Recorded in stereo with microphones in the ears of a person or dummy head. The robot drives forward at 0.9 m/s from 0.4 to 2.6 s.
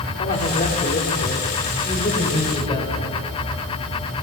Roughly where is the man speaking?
Left.